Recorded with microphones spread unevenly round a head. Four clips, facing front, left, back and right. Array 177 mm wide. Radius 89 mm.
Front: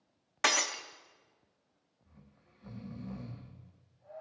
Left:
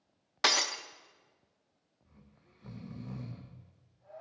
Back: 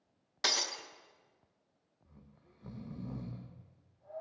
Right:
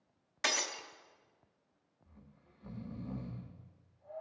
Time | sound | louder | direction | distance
0.4 | breaking glass | left 5 dB, front 6 dB | 65° left | 0.8 m
2.0 | snoring | even, back 1 dB | 165° left | 1.2 m